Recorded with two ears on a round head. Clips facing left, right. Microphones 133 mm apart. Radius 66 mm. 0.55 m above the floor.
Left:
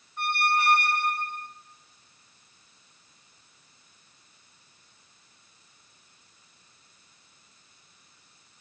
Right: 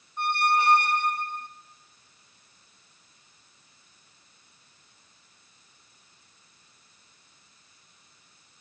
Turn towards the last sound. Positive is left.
turn(degrees=-20)  # may be behind; listen again after turning